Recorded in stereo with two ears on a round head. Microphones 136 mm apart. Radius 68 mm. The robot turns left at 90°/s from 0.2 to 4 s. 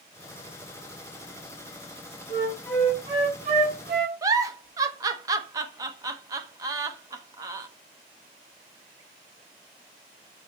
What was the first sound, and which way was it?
A flute, 50° left.